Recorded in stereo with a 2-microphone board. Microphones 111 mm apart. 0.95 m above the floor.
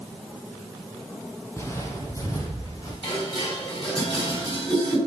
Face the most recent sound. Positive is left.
turn(degrees=50)  # may be behind; listen again after turning